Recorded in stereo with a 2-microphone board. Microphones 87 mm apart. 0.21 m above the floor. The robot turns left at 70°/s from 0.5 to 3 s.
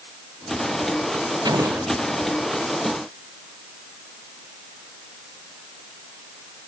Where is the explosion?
125° right; by 1.9 s 160° right.